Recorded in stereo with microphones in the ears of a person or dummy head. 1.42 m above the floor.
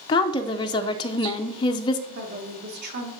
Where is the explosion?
No explosion in this recording.